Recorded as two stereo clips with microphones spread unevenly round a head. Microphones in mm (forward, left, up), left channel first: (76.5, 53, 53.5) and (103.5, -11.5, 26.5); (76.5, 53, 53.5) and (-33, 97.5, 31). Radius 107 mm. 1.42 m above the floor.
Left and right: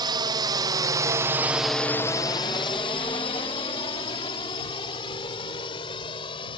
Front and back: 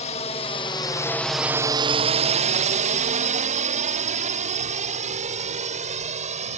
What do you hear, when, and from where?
0.0 s a drone: 75° right; by 6.6 s 135° left